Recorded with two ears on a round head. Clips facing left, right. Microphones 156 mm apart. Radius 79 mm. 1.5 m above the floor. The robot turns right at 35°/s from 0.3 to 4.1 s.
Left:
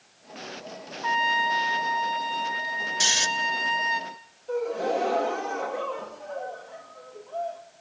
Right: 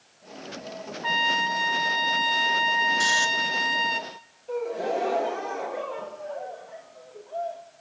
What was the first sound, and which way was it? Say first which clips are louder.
A trumpet: left 2 dB; 145° right.